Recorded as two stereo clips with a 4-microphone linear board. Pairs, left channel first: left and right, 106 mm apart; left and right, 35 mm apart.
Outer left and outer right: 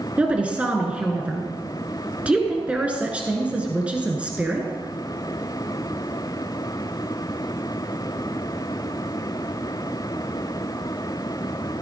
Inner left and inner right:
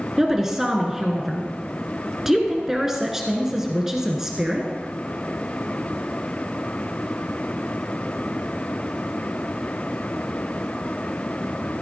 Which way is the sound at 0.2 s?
10° right (ahead or behind).